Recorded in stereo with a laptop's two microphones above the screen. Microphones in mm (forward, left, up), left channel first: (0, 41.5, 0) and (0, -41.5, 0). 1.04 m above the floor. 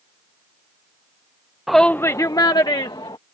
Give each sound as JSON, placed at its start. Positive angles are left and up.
{"t": 1.7, "sound": "a shout", "side_deg": 0}